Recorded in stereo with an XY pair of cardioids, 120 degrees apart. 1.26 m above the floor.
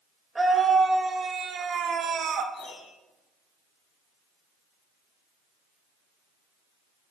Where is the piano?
60° left, 3.5 m.